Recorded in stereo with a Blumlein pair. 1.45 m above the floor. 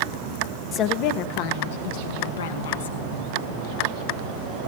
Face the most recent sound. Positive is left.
turn(degrees=65)